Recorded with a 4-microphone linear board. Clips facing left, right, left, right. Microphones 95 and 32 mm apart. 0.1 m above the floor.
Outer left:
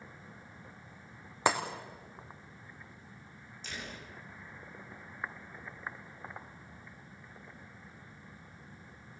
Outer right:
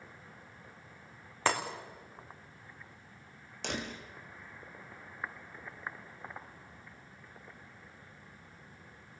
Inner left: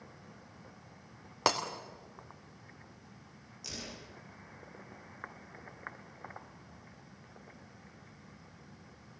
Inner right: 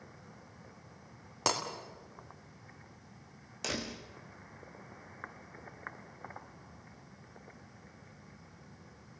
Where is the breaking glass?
15° left (ahead or behind), 3 m.